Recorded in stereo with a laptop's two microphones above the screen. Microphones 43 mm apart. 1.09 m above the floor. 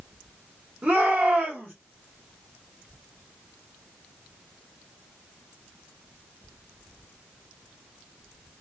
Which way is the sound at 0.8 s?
40° right (ahead or behind).